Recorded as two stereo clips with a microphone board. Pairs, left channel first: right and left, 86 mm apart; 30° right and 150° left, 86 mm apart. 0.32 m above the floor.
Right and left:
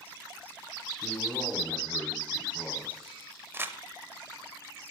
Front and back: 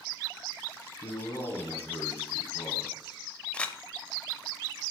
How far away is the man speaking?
About 1.7 m.